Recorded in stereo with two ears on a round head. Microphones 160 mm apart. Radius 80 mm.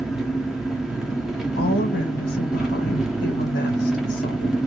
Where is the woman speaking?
50° left (ahead or behind), 1.4 m.